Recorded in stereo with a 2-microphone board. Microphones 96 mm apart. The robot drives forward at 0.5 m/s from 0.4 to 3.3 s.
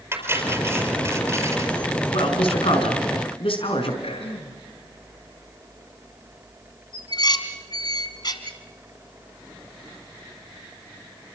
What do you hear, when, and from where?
0.1 s cutlery clinking: 25° right (ahead or behind), 5 m; by 1.8 s 30° right (ahead or behind), 4.5 m
2.1 s a man speaking: 75° left (ahead or behind), 4.5 m; by 3.9 s 70° left (ahead or behind), 5 m
4.0 s throat clearing: 85° left, 4.5 m
6.9 s dishes clattering: 50° left (ahead or behind), 2.5 m